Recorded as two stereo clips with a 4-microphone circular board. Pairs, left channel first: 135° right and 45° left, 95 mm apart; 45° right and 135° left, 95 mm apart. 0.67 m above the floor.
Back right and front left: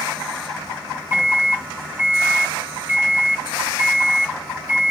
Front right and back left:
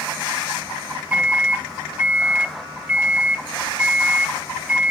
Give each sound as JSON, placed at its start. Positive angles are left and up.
{"t": 1.1, "sound": "a microwave", "azimuth_deg": 80, "distance_m": 0.9}